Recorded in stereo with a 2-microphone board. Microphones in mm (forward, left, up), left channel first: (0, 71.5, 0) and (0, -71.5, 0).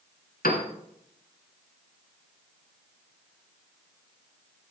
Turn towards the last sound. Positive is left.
turn(degrees=80)